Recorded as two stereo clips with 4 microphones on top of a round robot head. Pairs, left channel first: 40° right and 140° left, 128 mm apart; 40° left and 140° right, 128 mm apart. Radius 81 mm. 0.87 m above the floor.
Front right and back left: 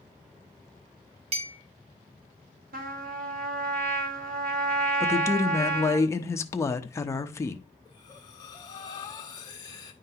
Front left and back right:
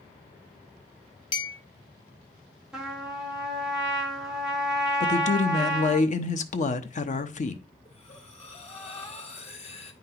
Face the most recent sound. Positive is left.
turn(degrees=15)